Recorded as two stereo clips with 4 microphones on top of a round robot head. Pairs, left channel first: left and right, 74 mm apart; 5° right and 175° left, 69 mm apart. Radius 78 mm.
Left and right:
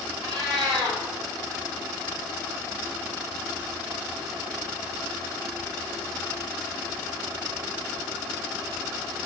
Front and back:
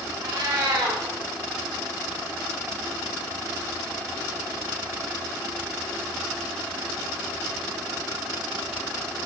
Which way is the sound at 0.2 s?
130° right.